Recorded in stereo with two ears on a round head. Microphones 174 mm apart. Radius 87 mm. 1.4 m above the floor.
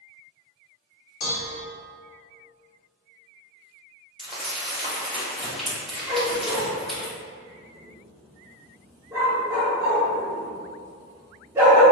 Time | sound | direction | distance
1.2 | dishes clattering | 40° left (ahead or behind) | 0.9 m
4.2 | crumpling | centre (ahead or behind) | 1.9 m
6.1 | a dog barking | 15° right (ahead or behind) | 1.0 m